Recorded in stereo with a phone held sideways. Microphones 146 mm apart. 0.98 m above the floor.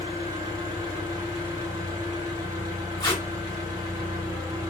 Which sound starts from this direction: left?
Tape being pulled, at 3.0 s.